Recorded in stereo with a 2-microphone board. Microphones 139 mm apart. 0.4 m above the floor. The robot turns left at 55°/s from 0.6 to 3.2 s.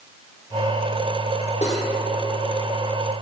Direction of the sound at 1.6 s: 55° left (ahead or behind).